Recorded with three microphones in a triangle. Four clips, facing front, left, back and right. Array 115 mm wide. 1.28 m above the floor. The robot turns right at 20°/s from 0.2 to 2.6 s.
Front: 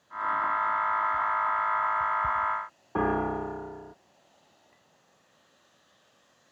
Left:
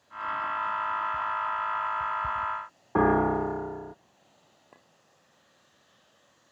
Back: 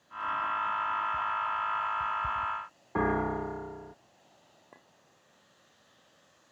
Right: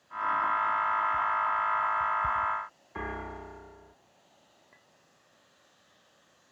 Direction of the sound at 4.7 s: 140° left.